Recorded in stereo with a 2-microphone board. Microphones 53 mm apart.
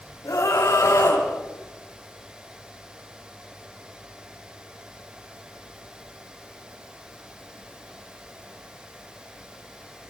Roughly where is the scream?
Left.